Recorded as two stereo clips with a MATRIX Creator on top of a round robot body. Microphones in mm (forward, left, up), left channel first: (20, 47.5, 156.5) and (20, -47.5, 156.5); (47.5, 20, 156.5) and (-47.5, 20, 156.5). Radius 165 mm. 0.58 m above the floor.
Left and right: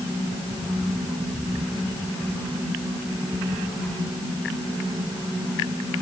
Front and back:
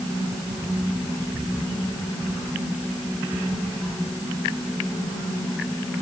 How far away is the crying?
I don't hear crying.